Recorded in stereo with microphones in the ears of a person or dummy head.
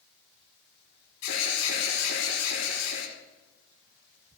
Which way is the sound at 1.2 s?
85° left.